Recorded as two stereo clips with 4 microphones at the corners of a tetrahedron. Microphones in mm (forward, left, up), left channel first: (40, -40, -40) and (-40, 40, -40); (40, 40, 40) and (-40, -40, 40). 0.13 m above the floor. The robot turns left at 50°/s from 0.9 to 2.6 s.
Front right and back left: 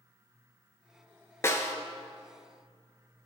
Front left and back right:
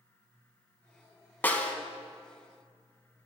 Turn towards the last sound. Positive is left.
turn(degrees=-70)